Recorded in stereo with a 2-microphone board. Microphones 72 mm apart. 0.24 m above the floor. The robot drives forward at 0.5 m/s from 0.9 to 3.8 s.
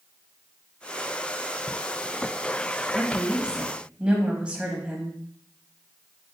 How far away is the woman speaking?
About 1.3 m.